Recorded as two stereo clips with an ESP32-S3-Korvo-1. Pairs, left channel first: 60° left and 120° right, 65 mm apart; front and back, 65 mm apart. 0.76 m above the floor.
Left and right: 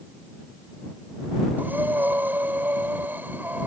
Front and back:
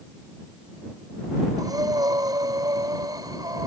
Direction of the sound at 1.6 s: Straight behind.